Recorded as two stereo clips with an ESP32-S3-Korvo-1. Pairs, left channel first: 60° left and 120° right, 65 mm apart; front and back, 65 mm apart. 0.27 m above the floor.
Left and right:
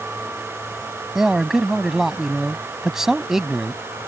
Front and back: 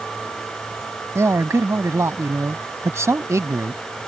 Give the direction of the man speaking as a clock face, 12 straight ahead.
7 o'clock.